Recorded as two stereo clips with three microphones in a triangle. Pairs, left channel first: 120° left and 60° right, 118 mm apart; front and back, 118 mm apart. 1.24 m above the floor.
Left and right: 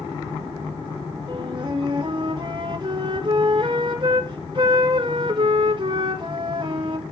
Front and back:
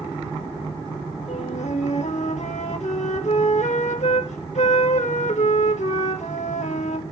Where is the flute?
15° right, 1.9 m.